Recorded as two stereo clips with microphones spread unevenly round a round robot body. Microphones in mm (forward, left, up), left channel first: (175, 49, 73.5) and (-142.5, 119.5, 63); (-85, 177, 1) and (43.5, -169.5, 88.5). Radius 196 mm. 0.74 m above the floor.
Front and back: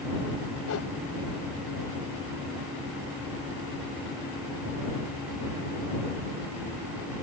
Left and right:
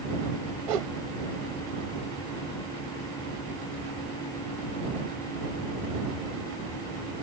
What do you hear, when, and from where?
0.7 s a whoosh: 70° right